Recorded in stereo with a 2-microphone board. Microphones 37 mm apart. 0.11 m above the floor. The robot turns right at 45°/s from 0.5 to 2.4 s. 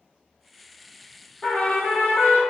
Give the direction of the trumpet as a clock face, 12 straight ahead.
10 o'clock.